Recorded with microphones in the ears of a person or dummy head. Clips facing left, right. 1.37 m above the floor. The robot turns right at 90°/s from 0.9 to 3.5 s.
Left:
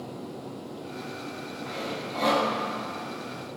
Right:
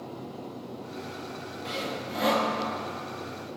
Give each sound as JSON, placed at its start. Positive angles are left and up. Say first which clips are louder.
{"t": 1.6, "sound": "sawing", "louder": "right 1 dB", "azimuth_deg": -55, "distance_m": 1.6}